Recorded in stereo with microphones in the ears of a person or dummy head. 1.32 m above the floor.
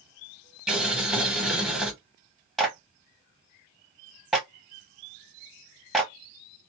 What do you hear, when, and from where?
0.7 s boiling: centre (ahead or behind), 1.0 m
2.6 s a clap: 5° right (ahead or behind), 0.8 m